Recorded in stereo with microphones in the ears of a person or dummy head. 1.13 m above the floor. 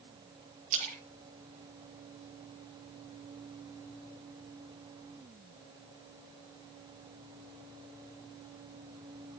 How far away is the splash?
About 5 m.